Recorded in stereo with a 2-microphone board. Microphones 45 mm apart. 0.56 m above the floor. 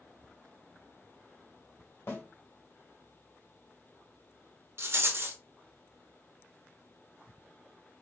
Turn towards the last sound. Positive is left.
turn(degrees=-65)  # may be behind; listen again after turning